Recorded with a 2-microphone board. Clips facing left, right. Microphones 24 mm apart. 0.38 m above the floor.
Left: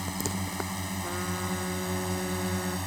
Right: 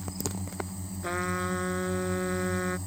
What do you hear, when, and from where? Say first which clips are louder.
0.0 s a drone: left 4 dB; 65° left (ahead or behind); by 2.9 s 60° left (ahead or behind)
1.0 s a trumpet: right 5 dB; 20° right (ahead or behind)